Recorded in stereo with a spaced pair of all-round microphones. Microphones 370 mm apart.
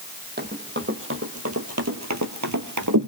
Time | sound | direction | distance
0.4 | running footsteps | 25° right (ahead or behind) | 3 m